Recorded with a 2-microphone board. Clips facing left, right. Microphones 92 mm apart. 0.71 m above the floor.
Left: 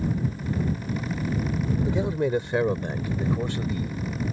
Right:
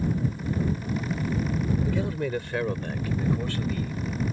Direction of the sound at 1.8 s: 20° left (ahead or behind).